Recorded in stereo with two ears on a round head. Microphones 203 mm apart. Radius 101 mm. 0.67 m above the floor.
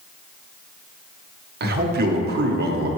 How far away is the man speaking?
About 1.0 m.